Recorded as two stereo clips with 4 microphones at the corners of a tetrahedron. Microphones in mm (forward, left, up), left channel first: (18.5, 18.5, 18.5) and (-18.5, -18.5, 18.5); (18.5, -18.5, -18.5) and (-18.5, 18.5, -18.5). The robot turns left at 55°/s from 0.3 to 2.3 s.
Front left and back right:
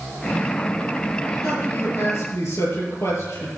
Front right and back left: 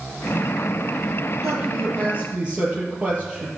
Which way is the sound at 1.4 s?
115° left.